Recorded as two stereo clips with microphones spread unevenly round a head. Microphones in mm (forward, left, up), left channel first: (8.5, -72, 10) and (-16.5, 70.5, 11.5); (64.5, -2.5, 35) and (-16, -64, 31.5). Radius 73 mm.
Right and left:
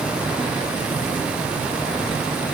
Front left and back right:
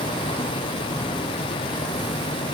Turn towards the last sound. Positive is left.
No sound to turn to.